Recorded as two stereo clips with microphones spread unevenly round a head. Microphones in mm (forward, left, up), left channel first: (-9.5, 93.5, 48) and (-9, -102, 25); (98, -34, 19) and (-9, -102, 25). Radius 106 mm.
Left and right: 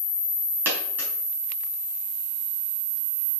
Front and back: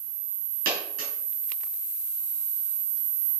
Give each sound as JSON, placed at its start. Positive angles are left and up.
{"t": 0.7, "sound": "a dropped coin", "azimuth_deg": -175, "distance_m": 4.5}